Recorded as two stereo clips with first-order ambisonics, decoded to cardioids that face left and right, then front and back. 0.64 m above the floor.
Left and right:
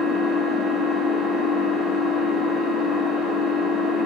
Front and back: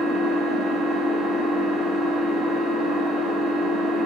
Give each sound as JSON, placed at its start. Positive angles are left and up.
{"t": 0.0, "sound": "an engine running", "azimuth_deg": 20, "distance_m": 1.4}